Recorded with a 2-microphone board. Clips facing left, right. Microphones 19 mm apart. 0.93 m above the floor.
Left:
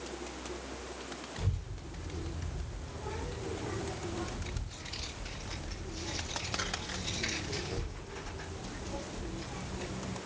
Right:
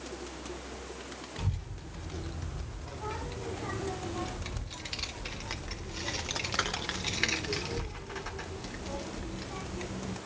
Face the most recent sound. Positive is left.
turn(degrees=-30)  # may be behind; listen again after turning